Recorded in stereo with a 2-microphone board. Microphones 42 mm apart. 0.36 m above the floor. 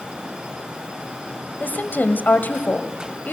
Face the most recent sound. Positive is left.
turn(degrees=50)  # may be behind; listen again after turning